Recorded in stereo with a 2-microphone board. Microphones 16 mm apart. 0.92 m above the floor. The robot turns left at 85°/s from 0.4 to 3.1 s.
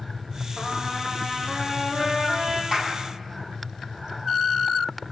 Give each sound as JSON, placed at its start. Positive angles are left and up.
{"t": 0.6, "sound": "a trumpet", "azimuth_deg": 55, "distance_m": 8.0}
{"t": 2.7, "sound": "a clap", "side_deg": -40, "distance_m": 7.0}